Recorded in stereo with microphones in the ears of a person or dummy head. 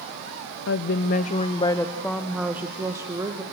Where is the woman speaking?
65° left (ahead or behind), 0.9 m; by 3.4 s 15° right (ahead or behind), 2 m.